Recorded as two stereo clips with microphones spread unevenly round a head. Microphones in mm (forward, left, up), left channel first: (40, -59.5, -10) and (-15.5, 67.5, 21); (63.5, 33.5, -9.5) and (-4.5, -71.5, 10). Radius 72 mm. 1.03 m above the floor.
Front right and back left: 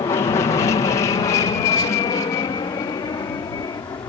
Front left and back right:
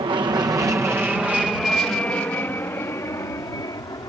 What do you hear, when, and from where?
0.0 s an aircraft: 95° right; by 4.1 s straight ahead